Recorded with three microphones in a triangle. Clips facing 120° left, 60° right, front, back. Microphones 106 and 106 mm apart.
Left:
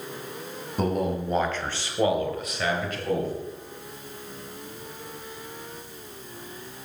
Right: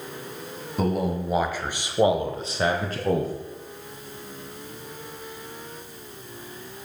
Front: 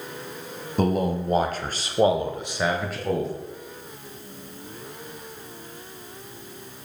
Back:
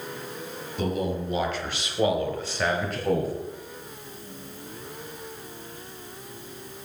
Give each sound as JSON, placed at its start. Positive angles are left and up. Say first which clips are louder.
{"t": 0.8, "sound": "a man speaking", "louder": "right 1 dB, front 5 dB", "azimuth_deg": 30, "distance_m": 2.0}